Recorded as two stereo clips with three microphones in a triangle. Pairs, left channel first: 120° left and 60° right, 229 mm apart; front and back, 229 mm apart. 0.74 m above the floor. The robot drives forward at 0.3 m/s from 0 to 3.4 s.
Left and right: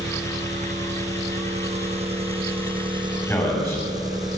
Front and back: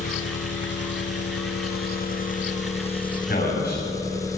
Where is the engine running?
5° right, 1.3 m; by 4.4 s 35° right, 0.6 m.